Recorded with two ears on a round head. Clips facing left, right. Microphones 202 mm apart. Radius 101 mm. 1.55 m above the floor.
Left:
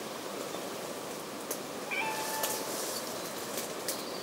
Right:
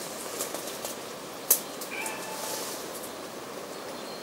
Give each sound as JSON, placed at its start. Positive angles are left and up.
{"t": 1.9, "sound": "a cat meowing", "side_deg": 70, "distance_m": 3.5}